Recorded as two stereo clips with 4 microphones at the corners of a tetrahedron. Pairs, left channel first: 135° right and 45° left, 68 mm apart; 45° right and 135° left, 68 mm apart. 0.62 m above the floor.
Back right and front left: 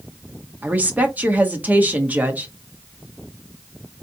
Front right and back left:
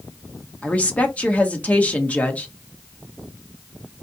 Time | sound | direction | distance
0.6 | a woman speaking | 5° left | 1.1 m